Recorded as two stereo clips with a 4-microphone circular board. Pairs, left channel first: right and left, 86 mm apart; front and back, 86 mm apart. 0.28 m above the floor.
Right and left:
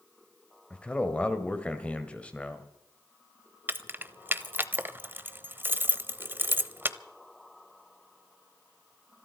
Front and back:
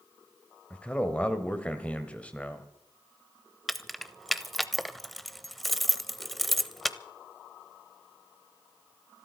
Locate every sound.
0.7 s a man speaking: 40° right, 1.6 m
3.7 s keys jangling: 90° left, 0.7 m